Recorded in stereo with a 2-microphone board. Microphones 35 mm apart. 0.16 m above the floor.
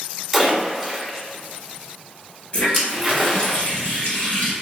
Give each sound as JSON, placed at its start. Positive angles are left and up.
{"t": 0.3, "sound": "a splash", "side_deg": 0, "distance_m": 1.2}
{"t": 2.5, "sound": "a running tap", "side_deg": 40, "distance_m": 1.6}